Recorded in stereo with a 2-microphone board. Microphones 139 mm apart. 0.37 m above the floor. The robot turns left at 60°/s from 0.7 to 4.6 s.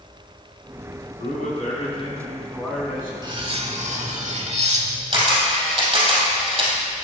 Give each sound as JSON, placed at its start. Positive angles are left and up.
{"t": 1.2, "sound": "a man speaking", "azimuth_deg": 100, "distance_m": 3.0}
{"t": 3.2, "sound": "cutlery clinking", "azimuth_deg": -35, "distance_m": 1.0}
{"t": 5.1, "sound": "a camera shutter", "side_deg": -45, "distance_m": 3.0}